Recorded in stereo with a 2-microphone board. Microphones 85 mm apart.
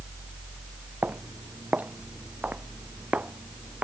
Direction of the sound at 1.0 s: 20° right (ahead or behind).